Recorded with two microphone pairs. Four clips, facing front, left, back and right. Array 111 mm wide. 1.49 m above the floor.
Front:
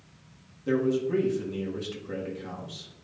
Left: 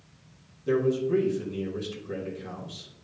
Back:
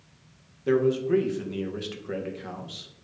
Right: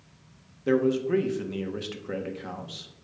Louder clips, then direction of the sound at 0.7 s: Right 1 dB, back 3 dB; 125° right.